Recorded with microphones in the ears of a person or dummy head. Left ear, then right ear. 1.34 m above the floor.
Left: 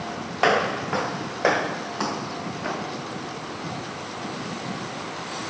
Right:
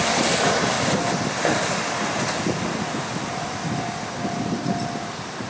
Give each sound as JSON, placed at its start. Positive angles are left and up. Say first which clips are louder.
{"t": 0.4, "sound": "footsteps", "louder": "right 1 dB", "side_deg": 75}